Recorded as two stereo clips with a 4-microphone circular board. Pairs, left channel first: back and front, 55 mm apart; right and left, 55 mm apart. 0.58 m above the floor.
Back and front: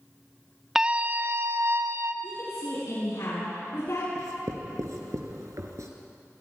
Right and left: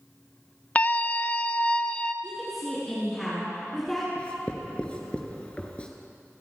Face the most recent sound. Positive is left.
turn(degrees=-20)